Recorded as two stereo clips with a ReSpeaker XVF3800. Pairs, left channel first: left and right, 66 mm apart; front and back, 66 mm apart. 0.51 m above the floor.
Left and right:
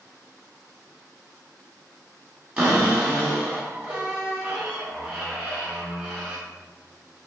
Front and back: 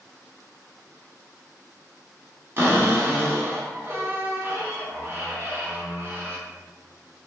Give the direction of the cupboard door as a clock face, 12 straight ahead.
5 o'clock.